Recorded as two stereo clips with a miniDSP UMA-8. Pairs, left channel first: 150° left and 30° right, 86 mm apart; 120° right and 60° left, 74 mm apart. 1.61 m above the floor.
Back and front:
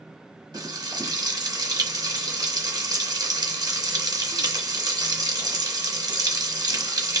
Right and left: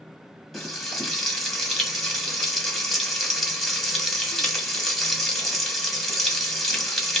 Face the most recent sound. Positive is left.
turn(degrees=-35)